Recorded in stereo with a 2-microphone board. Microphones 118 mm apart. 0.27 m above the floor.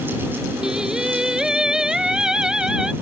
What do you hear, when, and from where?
0.6 s singing: 5° right (ahead or behind)